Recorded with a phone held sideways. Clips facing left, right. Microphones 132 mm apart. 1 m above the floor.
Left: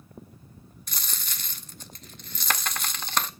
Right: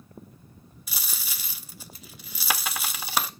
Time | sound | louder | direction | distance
0.9 | a dropped coin | even | 10° right (ahead or behind) | 0.5 m